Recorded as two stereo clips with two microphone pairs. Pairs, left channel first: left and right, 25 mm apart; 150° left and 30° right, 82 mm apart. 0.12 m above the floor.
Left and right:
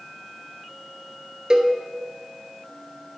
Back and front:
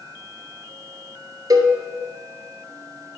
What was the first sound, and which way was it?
A cowbell, 40° right.